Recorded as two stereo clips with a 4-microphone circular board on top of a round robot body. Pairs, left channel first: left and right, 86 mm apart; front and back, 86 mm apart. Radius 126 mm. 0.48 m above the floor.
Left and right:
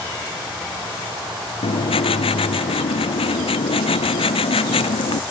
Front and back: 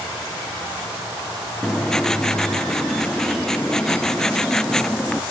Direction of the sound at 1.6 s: 85° left.